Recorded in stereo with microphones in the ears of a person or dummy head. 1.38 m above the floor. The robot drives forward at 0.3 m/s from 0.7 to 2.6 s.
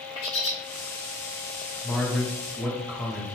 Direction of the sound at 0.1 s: 25° left (ahead or behind).